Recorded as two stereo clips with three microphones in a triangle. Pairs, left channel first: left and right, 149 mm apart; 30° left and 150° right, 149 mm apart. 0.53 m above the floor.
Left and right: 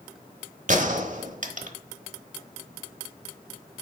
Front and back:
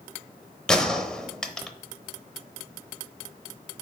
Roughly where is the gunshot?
Ahead right.